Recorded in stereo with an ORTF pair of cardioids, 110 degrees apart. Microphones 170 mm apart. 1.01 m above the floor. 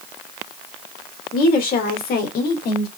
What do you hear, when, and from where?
1.3 s a woman speaking: 55° left, 3 m; by 2.9 s 70° left, 2 m